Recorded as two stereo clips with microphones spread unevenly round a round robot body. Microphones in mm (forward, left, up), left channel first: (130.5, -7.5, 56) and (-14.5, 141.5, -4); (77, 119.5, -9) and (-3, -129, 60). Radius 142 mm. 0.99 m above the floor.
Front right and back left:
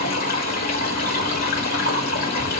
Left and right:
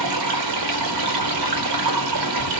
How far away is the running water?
About 1.3 m.